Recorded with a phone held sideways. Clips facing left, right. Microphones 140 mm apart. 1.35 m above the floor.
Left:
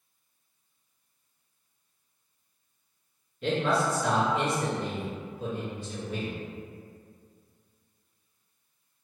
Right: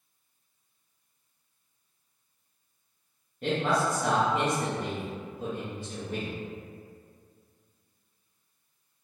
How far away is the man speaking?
About 0.8 m.